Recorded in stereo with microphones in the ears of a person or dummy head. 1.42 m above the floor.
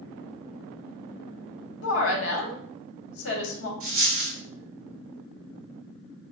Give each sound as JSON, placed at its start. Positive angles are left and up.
{"t": 1.8, "sound": "a woman speaking", "side_deg": 75, "distance_m": 1.2}
{"t": 3.8, "sound": "a dropped coin", "side_deg": -50, "distance_m": 1.8}